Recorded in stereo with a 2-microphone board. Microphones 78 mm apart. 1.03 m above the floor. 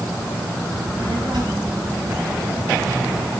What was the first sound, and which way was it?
A child speaking, 70° right (ahead or behind).